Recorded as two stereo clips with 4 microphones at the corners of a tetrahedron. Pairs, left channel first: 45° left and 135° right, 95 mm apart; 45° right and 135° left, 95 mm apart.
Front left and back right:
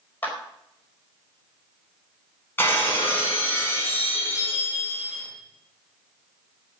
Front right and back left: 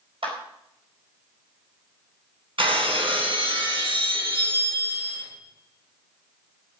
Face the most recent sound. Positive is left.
turn(degrees=110)